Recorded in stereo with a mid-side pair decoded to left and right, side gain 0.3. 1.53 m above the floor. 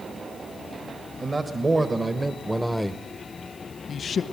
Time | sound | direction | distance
1.2 | a man speaking | 45° right | 1.8 m